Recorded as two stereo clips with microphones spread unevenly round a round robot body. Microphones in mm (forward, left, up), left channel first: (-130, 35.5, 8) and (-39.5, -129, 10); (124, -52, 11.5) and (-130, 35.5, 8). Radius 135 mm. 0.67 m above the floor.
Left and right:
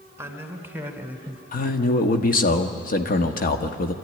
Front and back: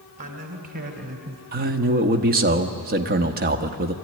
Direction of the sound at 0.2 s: 135° right.